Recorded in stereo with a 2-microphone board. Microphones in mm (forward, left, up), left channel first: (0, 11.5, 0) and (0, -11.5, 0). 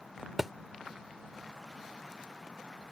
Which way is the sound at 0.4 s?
5° right (ahead or behind).